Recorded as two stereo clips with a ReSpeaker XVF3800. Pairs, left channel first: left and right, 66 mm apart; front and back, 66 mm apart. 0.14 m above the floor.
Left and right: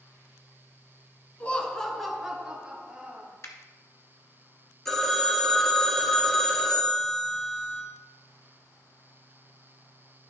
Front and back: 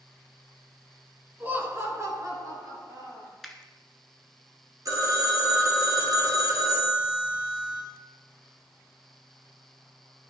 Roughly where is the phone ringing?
Behind.